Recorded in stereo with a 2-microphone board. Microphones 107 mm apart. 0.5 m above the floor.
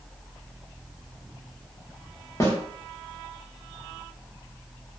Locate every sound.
2.4 s a snare drum: 30° left (ahead or behind), 0.7 m